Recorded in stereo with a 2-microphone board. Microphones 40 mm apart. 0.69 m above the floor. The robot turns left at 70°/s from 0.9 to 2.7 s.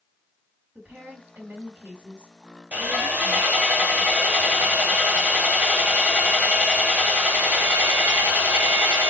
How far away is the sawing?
About 1.1 m.